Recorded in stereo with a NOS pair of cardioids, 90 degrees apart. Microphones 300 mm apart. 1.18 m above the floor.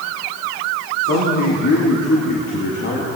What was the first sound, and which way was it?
A man speaking, 65° left.